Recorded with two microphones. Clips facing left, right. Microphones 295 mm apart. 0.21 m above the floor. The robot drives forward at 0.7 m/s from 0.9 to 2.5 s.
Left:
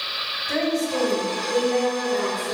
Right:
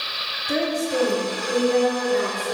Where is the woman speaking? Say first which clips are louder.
Even; 10° right (ahead or behind), 1.1 m; by 2.5 s 5° right (ahead or behind), 1.9 m.